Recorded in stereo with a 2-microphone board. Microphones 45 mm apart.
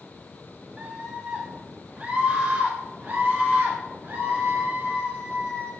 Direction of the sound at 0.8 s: 25° right (ahead or behind).